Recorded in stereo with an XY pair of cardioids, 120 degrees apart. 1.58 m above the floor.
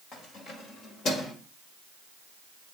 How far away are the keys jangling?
About 6 m.